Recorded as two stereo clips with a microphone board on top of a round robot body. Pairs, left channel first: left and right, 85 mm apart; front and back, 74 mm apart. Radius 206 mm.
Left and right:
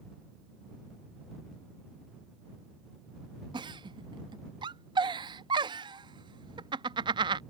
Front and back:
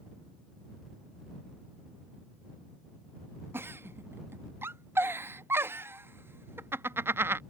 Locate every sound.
3.5 s a giggle: 120° right